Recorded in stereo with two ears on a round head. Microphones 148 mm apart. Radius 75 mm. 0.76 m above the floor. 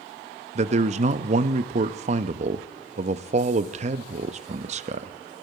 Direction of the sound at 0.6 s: 40° right (ahead or behind).